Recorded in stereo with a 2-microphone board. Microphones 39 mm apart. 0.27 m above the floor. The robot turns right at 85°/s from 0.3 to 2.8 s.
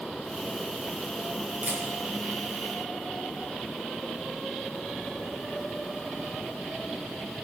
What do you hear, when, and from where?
1.6 s a camera shutter: 40° right (ahead or behind), 4.5 m; by 1.8 s 25° right (ahead or behind), 4.5 m